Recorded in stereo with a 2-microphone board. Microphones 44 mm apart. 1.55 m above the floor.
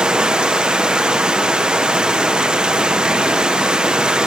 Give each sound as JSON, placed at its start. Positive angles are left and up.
{"t": 0.0, "sound": "running water", "side_deg": -15, "distance_m": 0.9}